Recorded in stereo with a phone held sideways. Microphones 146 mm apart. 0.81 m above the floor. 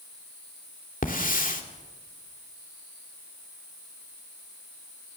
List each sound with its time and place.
1.0 s a hiss: 70° left (ahead or behind), 2.5 m